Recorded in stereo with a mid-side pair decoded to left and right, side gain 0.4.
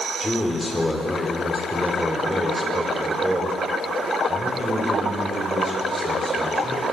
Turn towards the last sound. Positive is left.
turn(degrees=-35)